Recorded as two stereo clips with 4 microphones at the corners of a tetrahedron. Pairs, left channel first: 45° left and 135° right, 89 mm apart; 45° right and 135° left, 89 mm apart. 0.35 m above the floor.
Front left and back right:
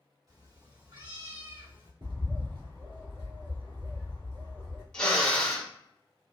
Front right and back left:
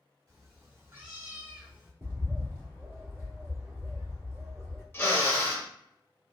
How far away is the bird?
About 1.7 m.